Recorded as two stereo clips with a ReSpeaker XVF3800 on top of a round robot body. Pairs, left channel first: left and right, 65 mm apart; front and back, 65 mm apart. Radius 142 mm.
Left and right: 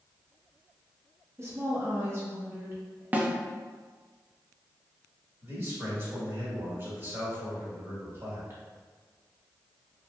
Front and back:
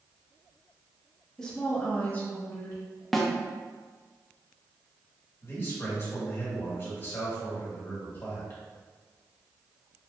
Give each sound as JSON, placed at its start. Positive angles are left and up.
{"t": 1.4, "sound": "a woman speaking", "azimuth_deg": -75, "distance_m": 1.2}
{"t": 3.1, "sound": "a snare drum", "azimuth_deg": -80, "distance_m": 0.7}
{"t": 5.4, "sound": "a man speaking", "azimuth_deg": -45, "distance_m": 1.9}